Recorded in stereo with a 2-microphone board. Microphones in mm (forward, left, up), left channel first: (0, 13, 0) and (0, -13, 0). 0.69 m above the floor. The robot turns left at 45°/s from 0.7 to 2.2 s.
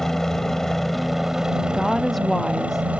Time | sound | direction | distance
0.0 | a helicopter | 15° left | ?
1.7 | a woman speaking | 15° right (ahead or behind) | ?